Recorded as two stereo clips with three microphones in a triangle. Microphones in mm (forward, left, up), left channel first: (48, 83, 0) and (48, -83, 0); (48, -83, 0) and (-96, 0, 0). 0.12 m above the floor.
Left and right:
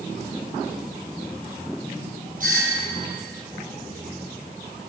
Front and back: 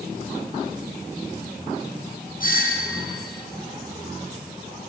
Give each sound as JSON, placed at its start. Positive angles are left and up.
{"t": 2.4, "sound": "a doorbell", "azimuth_deg": -55, "distance_m": 5.5}